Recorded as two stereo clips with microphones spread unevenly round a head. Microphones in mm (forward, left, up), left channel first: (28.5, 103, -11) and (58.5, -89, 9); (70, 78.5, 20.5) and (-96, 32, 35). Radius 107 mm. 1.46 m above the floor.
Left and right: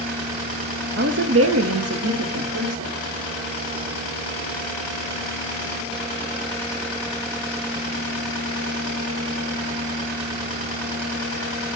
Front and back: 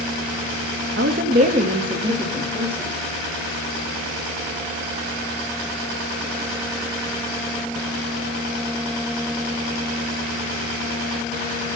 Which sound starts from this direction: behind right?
A woman speaking, at 1.0 s.